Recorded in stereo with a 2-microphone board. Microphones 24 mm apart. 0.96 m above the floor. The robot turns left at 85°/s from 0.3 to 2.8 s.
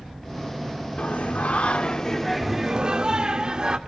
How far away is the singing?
About 1.1 m.